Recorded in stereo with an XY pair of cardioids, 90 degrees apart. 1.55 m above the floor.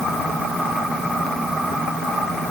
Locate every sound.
Only background noise.